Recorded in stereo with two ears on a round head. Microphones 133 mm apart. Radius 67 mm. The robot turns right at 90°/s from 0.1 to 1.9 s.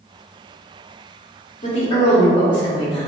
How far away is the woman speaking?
About 1.7 m.